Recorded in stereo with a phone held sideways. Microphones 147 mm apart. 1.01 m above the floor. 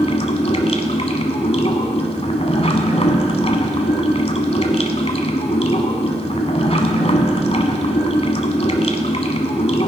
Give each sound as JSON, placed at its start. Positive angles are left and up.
{"t": 0.0, "sound": "running water", "side_deg": 45, "distance_m": 1.2}